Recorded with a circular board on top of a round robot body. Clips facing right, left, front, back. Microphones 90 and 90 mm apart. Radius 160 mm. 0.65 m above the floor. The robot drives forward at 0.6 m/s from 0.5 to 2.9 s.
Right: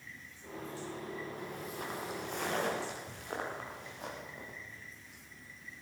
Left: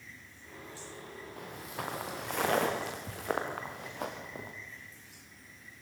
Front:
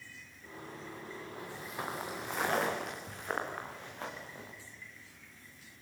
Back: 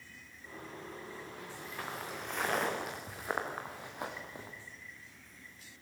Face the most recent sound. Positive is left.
turn(degrees=110)